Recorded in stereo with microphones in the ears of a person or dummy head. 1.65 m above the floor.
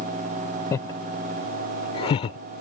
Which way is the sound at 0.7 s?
20° left (ahead or behind).